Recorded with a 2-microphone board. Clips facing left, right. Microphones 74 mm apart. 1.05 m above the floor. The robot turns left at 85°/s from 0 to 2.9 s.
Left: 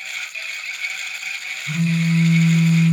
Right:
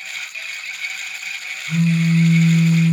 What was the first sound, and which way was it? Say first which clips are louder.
A phone buzzing: right 3 dB; 115° left.